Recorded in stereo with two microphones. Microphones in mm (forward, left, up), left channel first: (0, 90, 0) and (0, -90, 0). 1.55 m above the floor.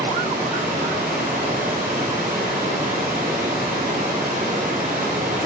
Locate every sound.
0.0 s running water: 45° right (ahead or behind), 4.5 m